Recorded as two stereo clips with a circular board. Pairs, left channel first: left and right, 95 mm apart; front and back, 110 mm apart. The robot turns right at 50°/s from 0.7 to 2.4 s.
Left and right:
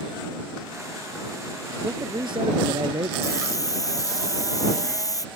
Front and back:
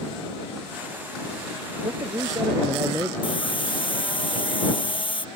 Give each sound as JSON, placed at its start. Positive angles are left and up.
{"t": 1.8, "sound": "a man speaking", "azimuth_deg": -145}
{"t": 3.2, "sound": "a hiss", "azimuth_deg": 40}